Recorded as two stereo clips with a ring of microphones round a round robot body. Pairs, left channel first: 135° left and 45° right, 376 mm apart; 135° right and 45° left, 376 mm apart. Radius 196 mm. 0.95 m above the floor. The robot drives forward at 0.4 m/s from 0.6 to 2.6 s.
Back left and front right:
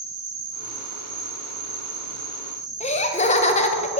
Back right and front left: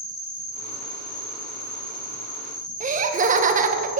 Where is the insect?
80° right, 2.5 m; by 4.0 s 100° right, 2.5 m.